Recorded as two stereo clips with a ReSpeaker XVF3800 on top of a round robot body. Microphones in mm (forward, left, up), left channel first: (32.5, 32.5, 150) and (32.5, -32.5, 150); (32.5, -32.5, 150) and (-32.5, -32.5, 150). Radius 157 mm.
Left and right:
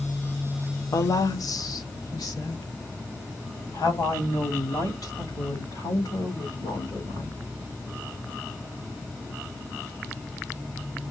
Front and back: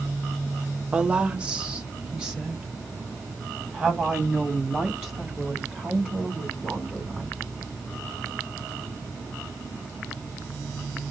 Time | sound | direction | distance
0.9 | a woman speaking | 110° left | 0.8 m